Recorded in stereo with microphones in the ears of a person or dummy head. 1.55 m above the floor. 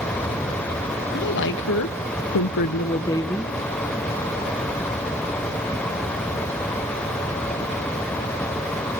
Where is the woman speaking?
50° left (ahead or behind), 2 m; by 3.5 s centre (ahead or behind), 1.6 m.